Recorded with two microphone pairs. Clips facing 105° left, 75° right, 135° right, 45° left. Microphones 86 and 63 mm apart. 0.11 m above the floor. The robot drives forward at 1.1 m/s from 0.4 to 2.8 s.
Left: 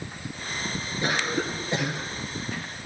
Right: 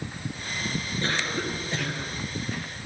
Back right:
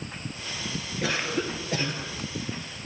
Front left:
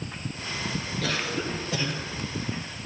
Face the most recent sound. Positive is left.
turn(degrees=180)